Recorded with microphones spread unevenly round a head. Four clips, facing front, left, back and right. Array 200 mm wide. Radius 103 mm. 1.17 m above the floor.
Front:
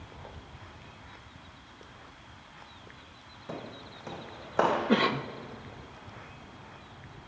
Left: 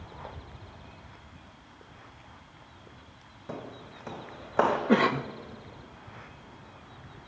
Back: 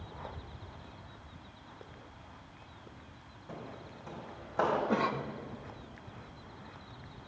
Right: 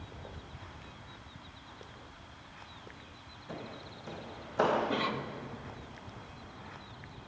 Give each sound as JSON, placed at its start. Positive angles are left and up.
{"t": 3.5, "sound": "footsteps", "azimuth_deg": 50, "distance_m": 3.0}
{"t": 4.9, "sound": "a cough", "azimuth_deg": 60, "distance_m": 0.6}